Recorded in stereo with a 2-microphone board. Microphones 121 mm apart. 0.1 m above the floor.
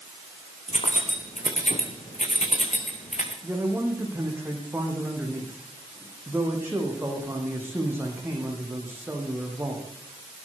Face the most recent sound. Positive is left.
turn(degrees=-20)  # may be behind; listen again after turning